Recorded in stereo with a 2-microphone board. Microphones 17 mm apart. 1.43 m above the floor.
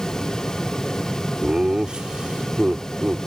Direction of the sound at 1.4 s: 65° right (ahead or behind).